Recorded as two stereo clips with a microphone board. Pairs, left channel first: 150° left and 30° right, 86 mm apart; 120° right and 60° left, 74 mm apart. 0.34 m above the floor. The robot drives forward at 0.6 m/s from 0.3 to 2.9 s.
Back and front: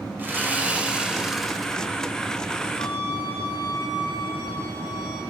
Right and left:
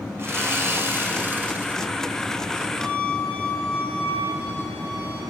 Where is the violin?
125° left, 7 m.